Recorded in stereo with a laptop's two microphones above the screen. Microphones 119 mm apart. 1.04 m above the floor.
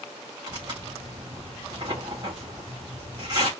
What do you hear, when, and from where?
0.5 s tearing paper: 35° right (ahead or behind), 1.8 m